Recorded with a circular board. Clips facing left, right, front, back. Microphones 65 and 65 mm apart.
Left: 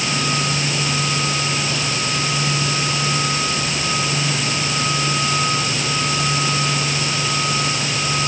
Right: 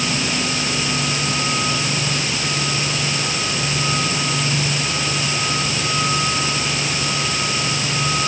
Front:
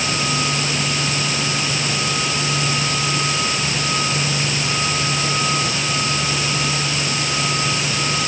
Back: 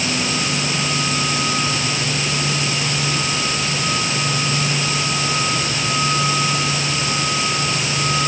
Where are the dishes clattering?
No dishes clattering in this recording.